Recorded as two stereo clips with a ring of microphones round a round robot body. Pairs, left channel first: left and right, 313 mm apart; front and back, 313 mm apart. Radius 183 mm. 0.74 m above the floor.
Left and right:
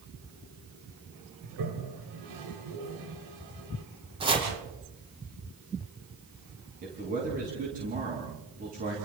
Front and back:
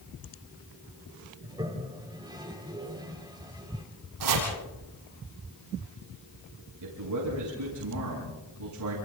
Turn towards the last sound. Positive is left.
turn(degrees=-155)